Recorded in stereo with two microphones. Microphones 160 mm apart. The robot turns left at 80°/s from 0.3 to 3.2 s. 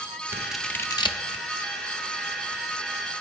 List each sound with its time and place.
0.3 s scissors: 15° right (ahead or behind), 0.7 m; by 1.5 s 45° left (ahead or behind), 0.7 m